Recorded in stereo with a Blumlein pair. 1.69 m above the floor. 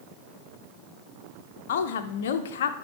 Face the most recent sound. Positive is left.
turn(degrees=55)